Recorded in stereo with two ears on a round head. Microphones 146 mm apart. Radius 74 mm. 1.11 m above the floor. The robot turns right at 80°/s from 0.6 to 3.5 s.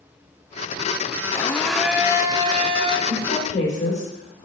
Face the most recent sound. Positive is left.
turn(degrees=45)  # may be behind; listen again after turning